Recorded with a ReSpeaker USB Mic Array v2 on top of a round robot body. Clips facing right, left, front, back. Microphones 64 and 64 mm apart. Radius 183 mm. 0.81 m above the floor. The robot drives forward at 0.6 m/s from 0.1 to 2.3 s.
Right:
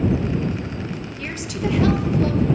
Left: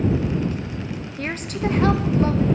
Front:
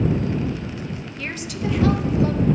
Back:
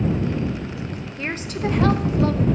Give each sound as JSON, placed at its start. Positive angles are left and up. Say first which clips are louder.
{"t": 1.2, "sound": "a woman speaking", "louder": "left 2 dB, back 3 dB", "azimuth_deg": 120, "distance_m": 1.0}